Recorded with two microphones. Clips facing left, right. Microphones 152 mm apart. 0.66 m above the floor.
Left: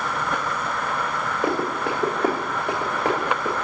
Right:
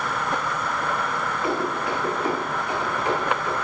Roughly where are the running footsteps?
Left.